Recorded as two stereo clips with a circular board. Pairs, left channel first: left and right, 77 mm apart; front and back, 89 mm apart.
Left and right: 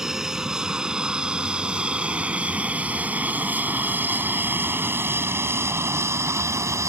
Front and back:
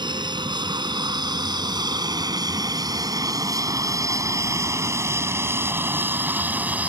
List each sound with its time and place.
0.0 s an aircraft: 170° right; by 6.9 s 115° right